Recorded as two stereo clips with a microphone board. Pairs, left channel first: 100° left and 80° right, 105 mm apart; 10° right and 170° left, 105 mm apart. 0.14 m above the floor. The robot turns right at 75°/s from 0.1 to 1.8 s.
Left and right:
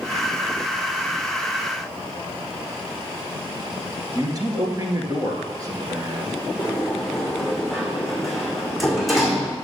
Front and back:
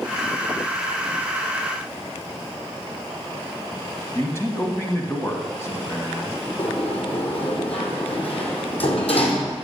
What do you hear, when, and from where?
4.2 s a man speaking: 60° right, 2.0 m
6.6 s a sliding door: 10° left, 2 m